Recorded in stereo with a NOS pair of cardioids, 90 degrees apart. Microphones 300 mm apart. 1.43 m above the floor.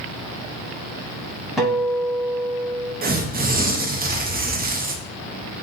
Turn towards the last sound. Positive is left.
turn(degrees=-30)